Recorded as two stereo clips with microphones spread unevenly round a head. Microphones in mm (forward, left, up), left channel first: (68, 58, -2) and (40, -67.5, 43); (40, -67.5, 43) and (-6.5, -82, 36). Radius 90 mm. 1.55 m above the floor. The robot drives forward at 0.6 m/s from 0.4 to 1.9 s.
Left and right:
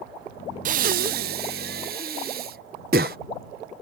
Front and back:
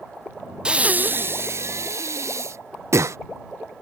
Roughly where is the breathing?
Right.